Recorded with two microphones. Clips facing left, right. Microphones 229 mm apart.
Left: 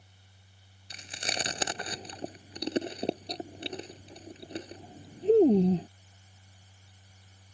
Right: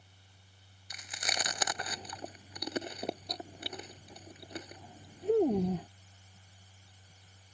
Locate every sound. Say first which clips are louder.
0.9 s chewing: left 3 dB; 30° left (ahead or behind)